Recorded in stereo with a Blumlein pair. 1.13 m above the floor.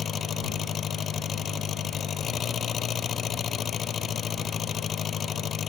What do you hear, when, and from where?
0.0 s an engine running: 25° left